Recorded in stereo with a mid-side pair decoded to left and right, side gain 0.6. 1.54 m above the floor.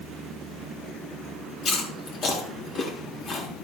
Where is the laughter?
No laughter in this recording.